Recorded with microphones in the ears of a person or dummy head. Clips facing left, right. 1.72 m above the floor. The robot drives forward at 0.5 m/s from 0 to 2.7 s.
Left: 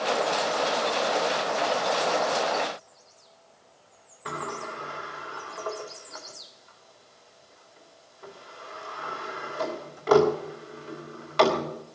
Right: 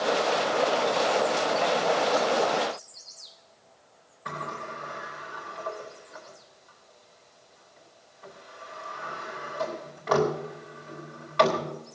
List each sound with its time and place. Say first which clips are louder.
4.2 s a sliding door: left 2 dB; 45° left (ahead or behind), 2.5 m